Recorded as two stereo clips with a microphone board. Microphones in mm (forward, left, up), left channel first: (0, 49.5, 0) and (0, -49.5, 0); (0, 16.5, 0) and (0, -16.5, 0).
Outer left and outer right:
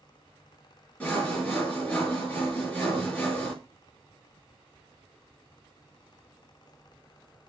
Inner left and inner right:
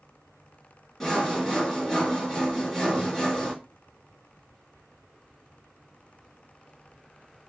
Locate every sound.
1.0 s sawing: 15° left (ahead or behind), 4 m